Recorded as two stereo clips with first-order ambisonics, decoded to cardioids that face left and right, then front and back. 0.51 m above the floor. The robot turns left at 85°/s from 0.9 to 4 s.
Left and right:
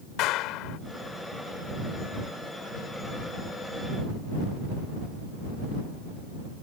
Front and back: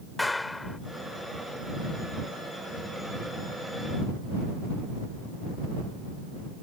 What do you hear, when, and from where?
0.2 s a clap: 80° left